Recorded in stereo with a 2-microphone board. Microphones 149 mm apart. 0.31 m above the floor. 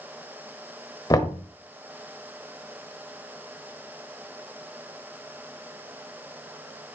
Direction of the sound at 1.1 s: 25° left (ahead or behind).